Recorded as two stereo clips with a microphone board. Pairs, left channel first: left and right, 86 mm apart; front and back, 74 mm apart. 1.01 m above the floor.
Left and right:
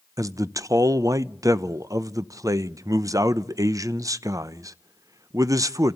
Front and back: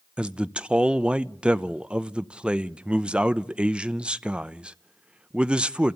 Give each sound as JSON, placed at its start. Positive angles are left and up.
{"t": 0.2, "sound": "a man speaking", "azimuth_deg": -110, "distance_m": 0.6}